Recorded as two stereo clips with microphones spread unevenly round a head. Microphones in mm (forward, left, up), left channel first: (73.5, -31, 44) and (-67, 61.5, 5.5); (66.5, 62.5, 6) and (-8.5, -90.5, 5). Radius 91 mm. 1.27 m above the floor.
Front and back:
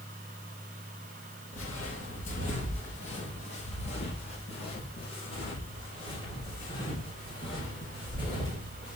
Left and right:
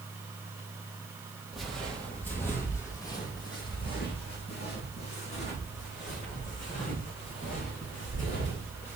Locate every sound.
1.5 s footsteps: 25° right, 1.9 m; by 8.9 s 30° left, 5 m